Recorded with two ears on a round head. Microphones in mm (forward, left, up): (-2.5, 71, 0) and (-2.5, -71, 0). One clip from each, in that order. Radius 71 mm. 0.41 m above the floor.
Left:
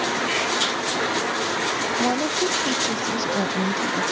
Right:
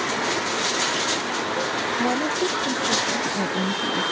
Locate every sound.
2.0 s a woman speaking: 55° left (ahead or behind)